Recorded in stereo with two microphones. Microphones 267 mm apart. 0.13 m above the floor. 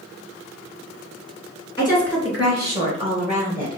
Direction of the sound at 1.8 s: 20° left (ahead or behind).